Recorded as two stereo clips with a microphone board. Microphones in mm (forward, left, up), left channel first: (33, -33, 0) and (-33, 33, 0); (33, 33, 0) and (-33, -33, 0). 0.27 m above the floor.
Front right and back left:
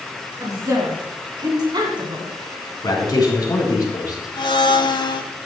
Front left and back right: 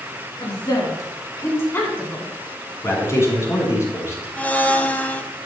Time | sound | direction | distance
0.4 | a woman speaking | 80° left | 3 m
2.8 | a man speaking | 10° right | 3 m
4.4 | a blender | 25° right | 0.6 m